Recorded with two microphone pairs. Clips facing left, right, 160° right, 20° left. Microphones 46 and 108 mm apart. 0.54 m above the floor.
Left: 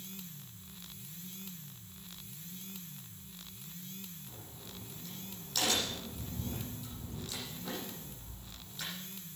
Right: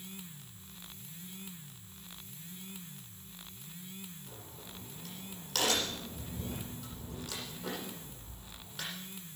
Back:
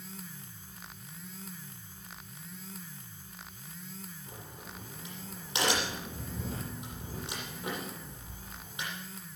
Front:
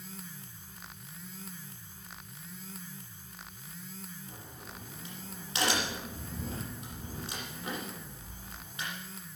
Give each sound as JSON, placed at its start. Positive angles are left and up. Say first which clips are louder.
{"t": 4.3, "sound": "a crack", "louder": "right 1 dB, back 1 dB", "azimuth_deg": -90, "distance_m": 9.0}